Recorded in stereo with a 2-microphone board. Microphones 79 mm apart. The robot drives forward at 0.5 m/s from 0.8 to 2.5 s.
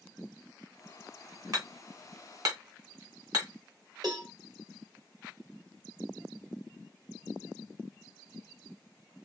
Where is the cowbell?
60° right (ahead or behind), 2.5 m.